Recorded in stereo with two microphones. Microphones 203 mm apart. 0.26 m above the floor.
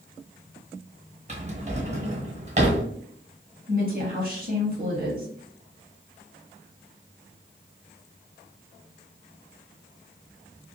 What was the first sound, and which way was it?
A drawer, 35° right (ahead or behind).